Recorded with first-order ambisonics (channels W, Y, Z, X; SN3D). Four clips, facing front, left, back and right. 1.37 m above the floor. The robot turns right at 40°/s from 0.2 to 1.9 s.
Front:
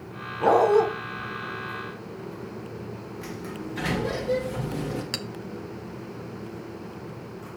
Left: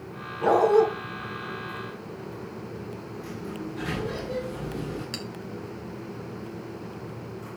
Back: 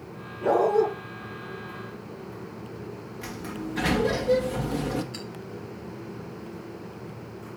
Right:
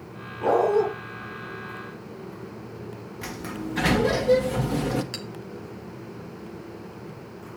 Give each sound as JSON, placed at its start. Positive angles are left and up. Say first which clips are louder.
{"t": 0.4, "sound": "a dog barking", "louder": "left 1 dB, front 3 dB", "azimuth_deg": 5, "distance_m": 2.5}
{"t": 3.2, "sound": "a sliding door", "louder": "right 4 dB, back 2 dB", "azimuth_deg": -100, "distance_m": 1.3}
{"t": 5.1, "sound": "a clink", "louder": "even, front 6 dB", "azimuth_deg": 0, "distance_m": 0.9}